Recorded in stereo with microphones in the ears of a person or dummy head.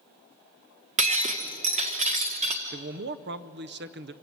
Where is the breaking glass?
40° right (ahead or behind), 1.6 m.